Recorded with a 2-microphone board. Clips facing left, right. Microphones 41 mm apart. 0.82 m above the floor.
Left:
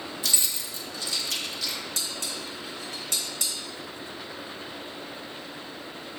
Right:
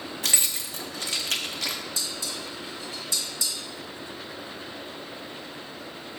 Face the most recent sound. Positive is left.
turn(degrees=60)  # may be behind; listen again after turning